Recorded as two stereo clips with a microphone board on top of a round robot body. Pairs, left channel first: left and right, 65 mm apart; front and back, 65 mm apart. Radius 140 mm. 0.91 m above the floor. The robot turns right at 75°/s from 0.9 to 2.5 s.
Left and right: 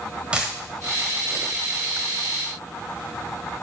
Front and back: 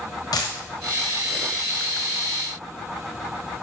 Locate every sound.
0.3 s a dropped coin: 15° right, 1.0 m